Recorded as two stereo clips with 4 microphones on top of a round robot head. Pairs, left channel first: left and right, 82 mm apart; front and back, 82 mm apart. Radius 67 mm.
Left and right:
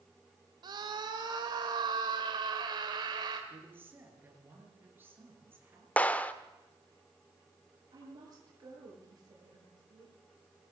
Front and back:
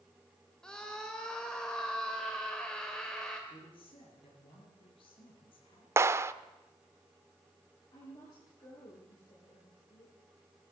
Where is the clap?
150° left, 1.0 m.